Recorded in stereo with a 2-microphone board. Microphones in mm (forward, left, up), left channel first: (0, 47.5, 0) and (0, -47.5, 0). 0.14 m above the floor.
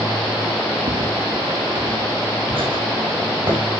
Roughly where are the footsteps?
Right.